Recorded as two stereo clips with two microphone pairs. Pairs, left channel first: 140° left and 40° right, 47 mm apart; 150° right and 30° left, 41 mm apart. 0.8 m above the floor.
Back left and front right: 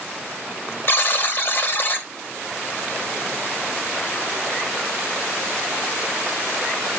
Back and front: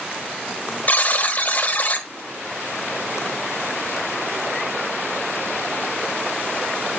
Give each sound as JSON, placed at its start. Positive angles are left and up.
{"t": 0.9, "sound": "a buzzer", "azimuth_deg": 170, "distance_m": 1.3}